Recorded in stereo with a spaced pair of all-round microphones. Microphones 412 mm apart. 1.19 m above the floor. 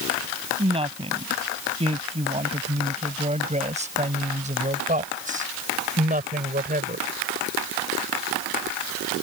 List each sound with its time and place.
0.6 s a woman speaking: 15° right (ahead or behind); by 7.1 s 20° right (ahead or behind)